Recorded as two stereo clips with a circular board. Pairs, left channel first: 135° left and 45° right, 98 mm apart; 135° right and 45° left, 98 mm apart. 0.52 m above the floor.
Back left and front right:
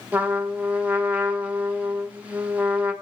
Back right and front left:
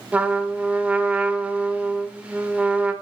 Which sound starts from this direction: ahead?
A trumpet, at 0.1 s.